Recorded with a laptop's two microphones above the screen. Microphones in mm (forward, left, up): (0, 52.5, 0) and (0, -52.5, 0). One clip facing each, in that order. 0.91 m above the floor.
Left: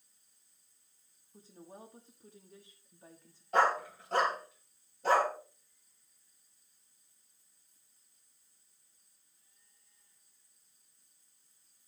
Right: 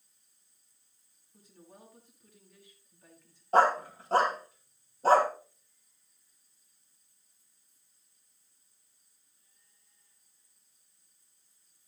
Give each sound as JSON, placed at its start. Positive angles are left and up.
{"t": 1.3, "sound": "a woman speaking", "side_deg": 30, "distance_m": 1.3}
{"t": 3.5, "sound": "a dog barking", "side_deg": -35, "distance_m": 1.9}